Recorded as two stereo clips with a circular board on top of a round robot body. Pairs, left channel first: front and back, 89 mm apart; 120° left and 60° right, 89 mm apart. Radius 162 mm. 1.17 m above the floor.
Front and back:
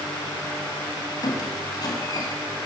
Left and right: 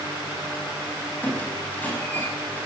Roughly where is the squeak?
Ahead left.